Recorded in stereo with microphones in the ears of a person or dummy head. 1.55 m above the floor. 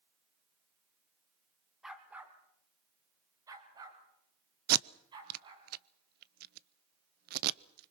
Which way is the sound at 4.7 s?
55° right (ahead or behind).